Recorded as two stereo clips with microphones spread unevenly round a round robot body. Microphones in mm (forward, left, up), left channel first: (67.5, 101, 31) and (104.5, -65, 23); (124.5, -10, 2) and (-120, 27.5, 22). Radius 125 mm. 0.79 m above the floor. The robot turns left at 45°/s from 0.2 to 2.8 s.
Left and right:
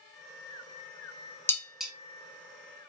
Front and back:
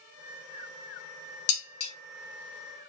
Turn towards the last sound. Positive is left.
turn(degrees=-35)